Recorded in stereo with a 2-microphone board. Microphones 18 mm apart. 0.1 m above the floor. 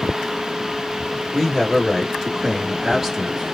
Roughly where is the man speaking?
Centre.